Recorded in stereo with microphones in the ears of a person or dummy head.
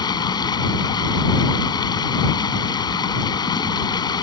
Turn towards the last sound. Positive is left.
turn(degrees=20)  # may be behind; listen again after turning